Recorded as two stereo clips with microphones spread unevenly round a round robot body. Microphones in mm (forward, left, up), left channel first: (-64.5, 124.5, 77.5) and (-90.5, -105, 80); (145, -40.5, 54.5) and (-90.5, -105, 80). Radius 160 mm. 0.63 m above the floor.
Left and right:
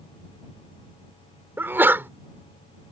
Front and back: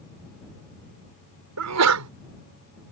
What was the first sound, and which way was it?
A sneeze, straight behind.